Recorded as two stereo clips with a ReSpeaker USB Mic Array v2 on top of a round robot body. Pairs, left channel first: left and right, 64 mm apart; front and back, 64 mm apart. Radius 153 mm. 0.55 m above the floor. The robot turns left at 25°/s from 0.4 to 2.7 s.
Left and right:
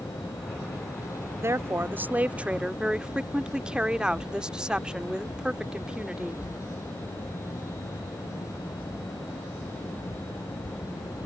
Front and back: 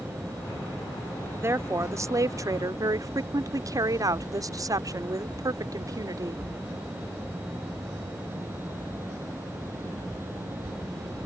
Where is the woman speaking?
135° right; by 6.4 s 165° right.